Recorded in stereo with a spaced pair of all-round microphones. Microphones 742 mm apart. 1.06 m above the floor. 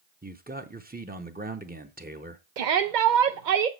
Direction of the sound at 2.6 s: 75° right (ahead or behind).